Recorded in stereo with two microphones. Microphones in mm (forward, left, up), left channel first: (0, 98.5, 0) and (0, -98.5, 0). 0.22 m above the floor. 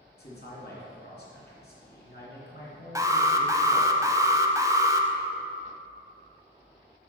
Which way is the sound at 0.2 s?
55° left (ahead or behind).